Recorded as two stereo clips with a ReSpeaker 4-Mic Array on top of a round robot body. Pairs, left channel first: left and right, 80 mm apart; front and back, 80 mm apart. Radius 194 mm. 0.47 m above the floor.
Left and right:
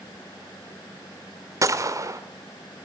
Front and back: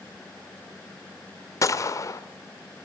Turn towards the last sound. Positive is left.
turn(degrees=-45)